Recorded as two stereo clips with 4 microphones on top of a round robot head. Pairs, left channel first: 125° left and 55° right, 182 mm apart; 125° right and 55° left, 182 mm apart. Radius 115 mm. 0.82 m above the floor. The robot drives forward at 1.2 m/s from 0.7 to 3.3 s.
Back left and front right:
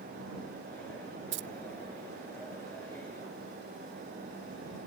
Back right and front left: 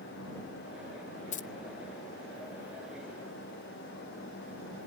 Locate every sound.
1.3 s keys jangling: 75° right; by 1.5 s 80° right